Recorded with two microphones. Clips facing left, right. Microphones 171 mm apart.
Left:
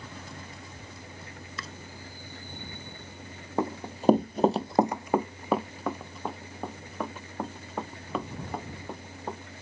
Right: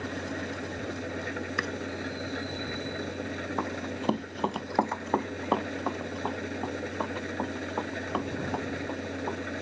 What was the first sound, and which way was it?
An engine running, 75° right (ahead or behind).